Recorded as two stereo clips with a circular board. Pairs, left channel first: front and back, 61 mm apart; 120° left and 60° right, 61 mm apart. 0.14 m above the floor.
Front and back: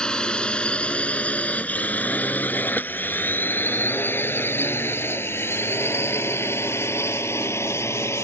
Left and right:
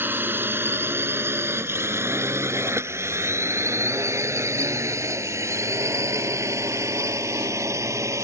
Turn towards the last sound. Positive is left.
turn(degrees=-35)